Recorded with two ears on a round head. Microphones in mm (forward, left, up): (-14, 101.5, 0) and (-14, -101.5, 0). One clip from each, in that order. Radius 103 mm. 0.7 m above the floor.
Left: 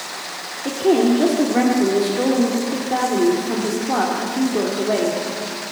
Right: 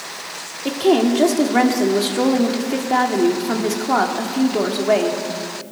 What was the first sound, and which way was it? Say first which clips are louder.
A woman speaking: even; 50° right (ahead or behind).